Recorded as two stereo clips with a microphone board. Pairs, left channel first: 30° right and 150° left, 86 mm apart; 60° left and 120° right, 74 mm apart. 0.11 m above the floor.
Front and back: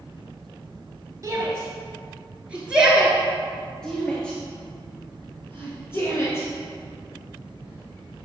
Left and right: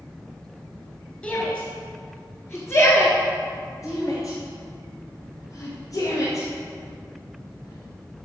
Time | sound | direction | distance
1.2 | a shout | 120° left | 1.6 m